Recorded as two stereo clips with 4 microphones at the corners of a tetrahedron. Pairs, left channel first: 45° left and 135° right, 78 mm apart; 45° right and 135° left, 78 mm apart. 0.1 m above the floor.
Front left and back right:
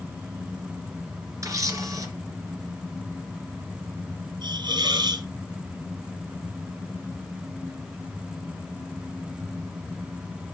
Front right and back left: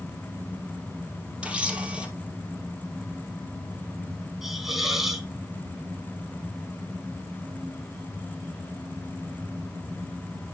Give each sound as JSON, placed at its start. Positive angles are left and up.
{"t": 1.4, "sound": "a camera shutter", "azimuth_deg": -155, "distance_m": 1.9}
{"t": 4.4, "sound": "a hiss", "azimuth_deg": -140, "distance_m": 1.2}